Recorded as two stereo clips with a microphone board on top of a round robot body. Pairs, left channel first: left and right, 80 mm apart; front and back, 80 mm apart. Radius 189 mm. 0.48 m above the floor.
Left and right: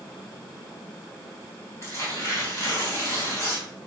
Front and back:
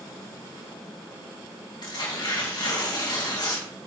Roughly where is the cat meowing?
No cat meowing in this recording.